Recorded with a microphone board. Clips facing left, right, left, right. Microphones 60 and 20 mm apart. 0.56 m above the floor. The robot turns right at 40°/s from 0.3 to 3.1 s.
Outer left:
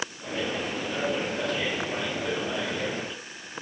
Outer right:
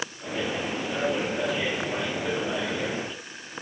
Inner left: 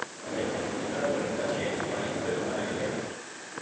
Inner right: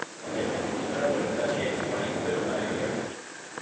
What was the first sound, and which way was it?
Only background noise.